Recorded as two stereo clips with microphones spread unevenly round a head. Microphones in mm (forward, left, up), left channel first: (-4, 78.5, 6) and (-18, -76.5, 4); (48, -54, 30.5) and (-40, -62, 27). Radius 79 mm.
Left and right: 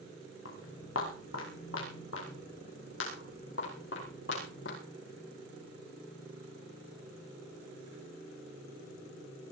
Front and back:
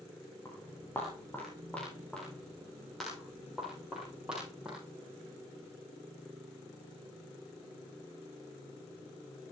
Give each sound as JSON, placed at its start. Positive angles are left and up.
{"t": 0.5, "sound": "footsteps", "azimuth_deg": 75, "distance_m": 7.0}